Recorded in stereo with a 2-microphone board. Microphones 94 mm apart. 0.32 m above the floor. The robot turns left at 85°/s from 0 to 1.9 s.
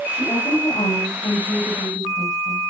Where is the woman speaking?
150° left, 9.5 m; by 2.6 s 5° right, 9.5 m.